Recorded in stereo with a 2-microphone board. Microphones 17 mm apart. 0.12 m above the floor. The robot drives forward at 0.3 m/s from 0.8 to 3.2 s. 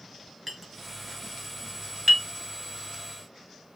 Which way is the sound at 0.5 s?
10° right (ahead or behind).